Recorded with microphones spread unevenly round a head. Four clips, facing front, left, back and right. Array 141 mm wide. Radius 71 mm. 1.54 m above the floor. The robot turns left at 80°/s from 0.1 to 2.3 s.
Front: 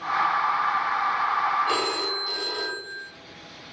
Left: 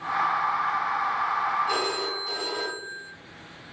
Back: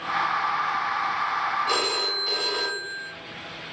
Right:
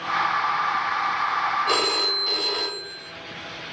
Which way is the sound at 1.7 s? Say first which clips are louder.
Right 3 dB, front 1 dB; 75° right.